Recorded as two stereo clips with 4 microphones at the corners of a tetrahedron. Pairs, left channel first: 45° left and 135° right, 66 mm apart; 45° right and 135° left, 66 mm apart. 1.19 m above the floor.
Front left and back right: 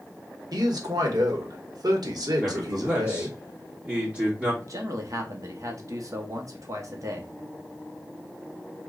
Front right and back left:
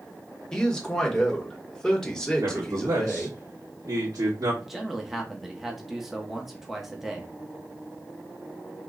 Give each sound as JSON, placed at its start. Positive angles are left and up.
{"t": 0.5, "sound": "a man speaking", "azimuth_deg": -125, "distance_m": 1.0}
{"t": 2.4, "sound": "a man speaking", "azimuth_deg": 155, "distance_m": 1.6}
{"t": 4.6, "sound": "a man speaking", "azimuth_deg": -135, "distance_m": 0.8}